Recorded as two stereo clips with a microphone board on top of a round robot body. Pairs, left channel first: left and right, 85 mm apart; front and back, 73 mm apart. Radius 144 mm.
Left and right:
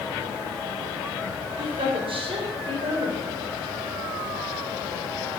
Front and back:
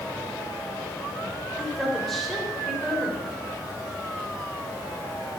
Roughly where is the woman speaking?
Right.